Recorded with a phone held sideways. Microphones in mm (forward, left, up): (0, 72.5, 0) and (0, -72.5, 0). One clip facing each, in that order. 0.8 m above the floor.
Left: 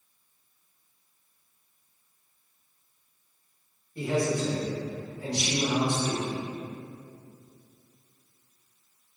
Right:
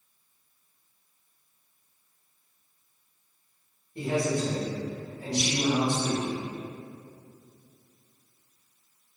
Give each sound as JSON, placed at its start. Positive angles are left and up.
{"t": 4.0, "sound": "a man speaking", "side_deg": -20, "distance_m": 0.9}